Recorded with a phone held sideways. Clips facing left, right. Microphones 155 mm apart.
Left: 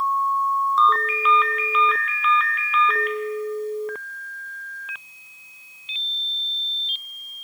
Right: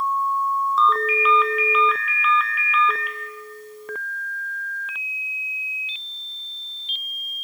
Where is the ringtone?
Centre (ahead or behind), 1.0 m.